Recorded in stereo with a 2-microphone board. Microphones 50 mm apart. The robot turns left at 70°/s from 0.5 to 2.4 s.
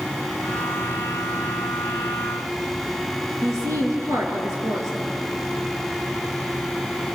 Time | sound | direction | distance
3.4 | a woman speaking | 65° right (ahead or behind) | 4.5 m